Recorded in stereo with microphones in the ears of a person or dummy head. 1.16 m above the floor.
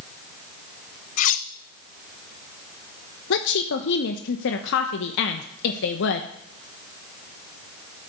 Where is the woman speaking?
60° left (ahead or behind), 0.8 m.